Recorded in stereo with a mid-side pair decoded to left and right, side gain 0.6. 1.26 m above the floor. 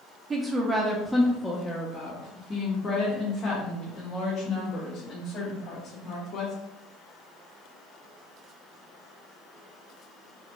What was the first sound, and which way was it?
A woman speaking, 35° right.